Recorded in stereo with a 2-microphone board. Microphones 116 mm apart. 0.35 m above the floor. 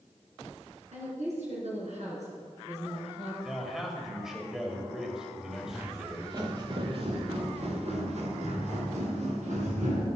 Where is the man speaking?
5° right (ahead or behind), 1.7 m.